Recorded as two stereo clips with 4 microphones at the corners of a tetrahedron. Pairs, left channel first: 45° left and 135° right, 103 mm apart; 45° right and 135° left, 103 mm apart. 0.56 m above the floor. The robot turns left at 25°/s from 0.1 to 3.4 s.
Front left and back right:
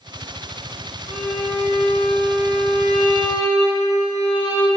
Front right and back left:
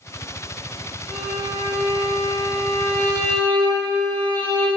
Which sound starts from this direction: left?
A violin, at 1.1 s.